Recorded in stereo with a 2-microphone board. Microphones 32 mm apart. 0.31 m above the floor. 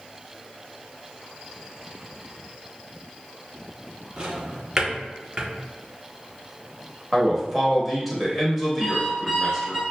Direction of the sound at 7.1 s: 5° right (ahead or behind).